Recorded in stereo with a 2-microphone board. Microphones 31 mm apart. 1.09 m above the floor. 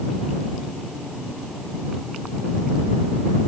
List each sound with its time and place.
Only background noise.